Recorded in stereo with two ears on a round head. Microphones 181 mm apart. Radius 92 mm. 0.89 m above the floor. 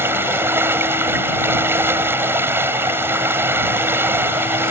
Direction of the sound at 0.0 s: 10° right (ahead or behind).